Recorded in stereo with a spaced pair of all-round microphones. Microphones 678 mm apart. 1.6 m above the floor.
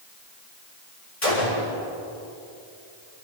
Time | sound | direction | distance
1.2 | a gunshot | 55° left (ahead or behind) | 7.5 m